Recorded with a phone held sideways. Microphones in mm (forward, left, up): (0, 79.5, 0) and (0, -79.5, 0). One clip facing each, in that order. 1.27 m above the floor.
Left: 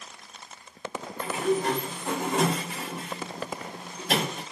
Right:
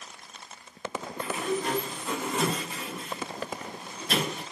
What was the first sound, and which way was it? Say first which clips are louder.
A sliding door: left 4 dB; 80° left.